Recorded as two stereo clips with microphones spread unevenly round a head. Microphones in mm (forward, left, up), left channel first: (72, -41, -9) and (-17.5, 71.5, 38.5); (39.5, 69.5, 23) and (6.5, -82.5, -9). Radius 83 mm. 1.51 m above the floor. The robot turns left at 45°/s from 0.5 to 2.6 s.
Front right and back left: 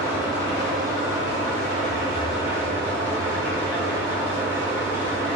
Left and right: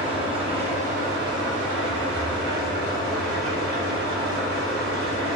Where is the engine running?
45° right, 4.5 m; by 5.4 s 140° right, 4.5 m.